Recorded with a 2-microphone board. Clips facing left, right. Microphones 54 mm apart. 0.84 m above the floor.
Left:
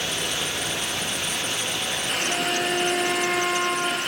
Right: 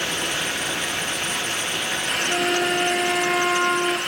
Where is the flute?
20° right (ahead or behind), 1.4 m.